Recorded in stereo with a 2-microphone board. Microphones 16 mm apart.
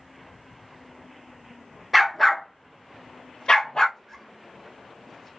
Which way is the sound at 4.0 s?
10° left (ahead or behind).